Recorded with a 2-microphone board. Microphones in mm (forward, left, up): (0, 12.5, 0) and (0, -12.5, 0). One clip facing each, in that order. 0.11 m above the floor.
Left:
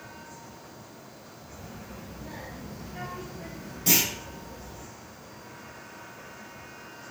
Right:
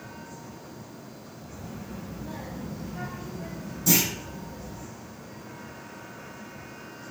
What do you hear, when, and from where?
1.5 s a child speaking: 30° left (ahead or behind), 1.3 m; by 4.9 s 45° left (ahead or behind), 1.6 m
3.9 s a clunk: 55° left (ahead or behind), 1.5 m